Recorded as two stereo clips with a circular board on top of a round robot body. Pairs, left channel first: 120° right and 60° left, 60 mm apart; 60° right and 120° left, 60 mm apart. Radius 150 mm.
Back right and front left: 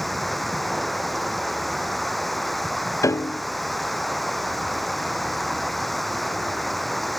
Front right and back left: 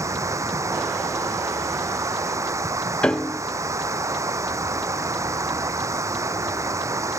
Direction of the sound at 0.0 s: 155° left.